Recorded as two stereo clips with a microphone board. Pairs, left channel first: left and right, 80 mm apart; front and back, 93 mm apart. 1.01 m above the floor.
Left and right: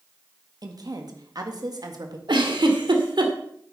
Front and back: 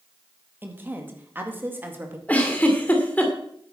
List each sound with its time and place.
0.6 s a woman speaking: 115° right, 1.9 m
2.3 s a giggle: 75° right, 1.8 m